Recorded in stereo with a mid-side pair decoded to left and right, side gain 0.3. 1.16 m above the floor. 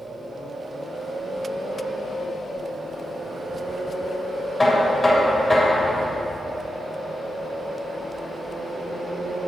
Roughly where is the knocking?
Ahead left.